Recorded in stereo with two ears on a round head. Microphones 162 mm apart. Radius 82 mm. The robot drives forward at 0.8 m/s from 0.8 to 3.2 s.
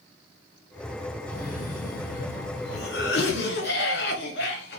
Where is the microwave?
No microwave in this recording.